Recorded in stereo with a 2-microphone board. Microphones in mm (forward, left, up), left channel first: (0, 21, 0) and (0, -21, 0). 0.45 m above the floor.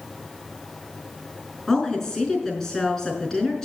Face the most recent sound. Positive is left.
turn(degrees=15)  # may be behind; listen again after turning